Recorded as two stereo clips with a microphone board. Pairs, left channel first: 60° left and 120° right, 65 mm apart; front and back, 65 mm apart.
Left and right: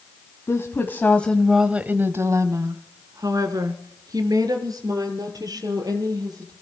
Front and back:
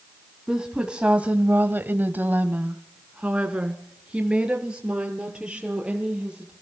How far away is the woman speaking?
About 1.8 m.